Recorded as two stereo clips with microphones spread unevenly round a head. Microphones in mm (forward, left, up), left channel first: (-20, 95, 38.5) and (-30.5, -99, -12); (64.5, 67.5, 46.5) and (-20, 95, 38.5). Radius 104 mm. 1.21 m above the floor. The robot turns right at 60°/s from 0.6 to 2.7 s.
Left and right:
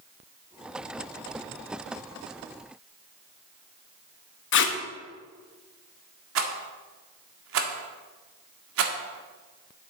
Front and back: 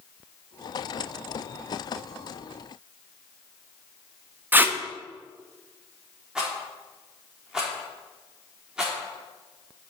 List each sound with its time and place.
4.5 s tape being pulled: 90° left, 1.0 m
6.3 s a rattle: 110° right, 1.6 m